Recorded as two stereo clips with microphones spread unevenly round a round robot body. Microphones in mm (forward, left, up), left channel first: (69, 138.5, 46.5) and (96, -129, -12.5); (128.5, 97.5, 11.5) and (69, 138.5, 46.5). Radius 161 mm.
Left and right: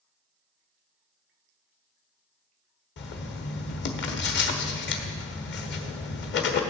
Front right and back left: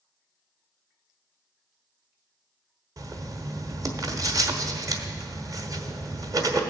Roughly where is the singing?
No singing in this recording.